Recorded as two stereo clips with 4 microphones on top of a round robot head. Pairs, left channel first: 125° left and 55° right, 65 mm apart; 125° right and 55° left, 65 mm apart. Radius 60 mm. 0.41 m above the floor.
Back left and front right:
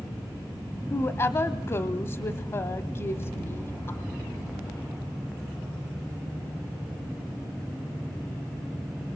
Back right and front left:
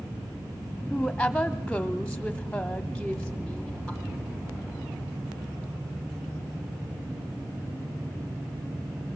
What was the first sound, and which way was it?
A woman speaking, 160° left.